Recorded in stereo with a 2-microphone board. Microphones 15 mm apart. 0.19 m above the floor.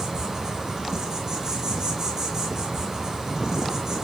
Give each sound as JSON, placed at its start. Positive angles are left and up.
{"t": 0.0, "sound": "an insect", "side_deg": -25, "distance_m": 1.6}